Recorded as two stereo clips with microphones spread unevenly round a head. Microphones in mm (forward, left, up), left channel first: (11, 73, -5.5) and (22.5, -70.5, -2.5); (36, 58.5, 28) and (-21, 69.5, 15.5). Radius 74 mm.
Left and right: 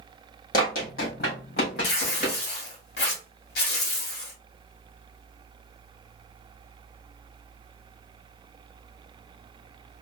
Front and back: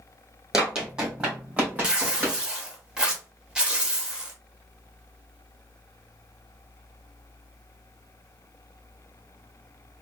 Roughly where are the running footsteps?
Left.